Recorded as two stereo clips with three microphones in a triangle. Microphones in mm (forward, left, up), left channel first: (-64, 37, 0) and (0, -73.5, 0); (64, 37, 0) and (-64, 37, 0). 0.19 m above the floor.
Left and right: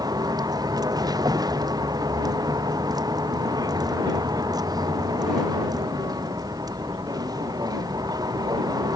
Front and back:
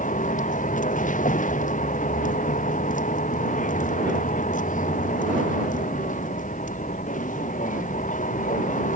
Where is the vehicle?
Straight ahead.